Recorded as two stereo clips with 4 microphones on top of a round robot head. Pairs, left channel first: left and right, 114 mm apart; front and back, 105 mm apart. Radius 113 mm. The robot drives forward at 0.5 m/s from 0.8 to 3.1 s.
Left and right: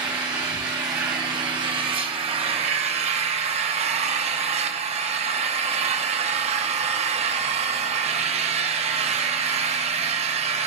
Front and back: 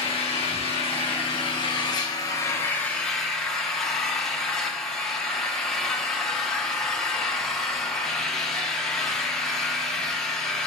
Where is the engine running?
30° right, 1.5 m; by 10.7 s 85° right, 0.9 m.